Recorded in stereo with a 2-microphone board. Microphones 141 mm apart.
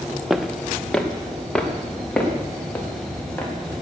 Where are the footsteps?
5° right (ahead or behind), 1.0 m; by 3.5 s 10° left (ahead or behind), 4.5 m.